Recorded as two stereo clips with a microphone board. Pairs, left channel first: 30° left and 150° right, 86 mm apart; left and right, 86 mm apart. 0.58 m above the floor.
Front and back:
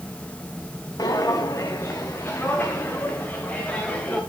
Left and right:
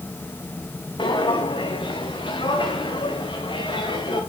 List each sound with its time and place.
1.0 s footsteps: 75° left, 1.7 m; by 4.2 s 110° left, 3.5 m